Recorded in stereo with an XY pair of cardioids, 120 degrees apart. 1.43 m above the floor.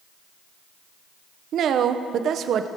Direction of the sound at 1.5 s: 55° right.